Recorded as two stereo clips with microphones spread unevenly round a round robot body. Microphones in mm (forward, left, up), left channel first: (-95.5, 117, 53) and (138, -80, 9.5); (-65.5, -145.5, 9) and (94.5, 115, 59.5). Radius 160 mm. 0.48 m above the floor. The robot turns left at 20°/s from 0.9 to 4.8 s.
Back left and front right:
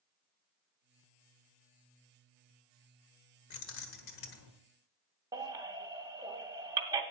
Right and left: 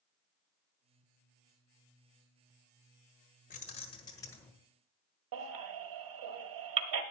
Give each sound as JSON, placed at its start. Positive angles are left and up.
{"t": 3.5, "sound": "keys jangling", "azimuth_deg": 180, "distance_m": 1.4}
{"t": 5.3, "sound": "a baby crying", "azimuth_deg": 40, "distance_m": 1.8}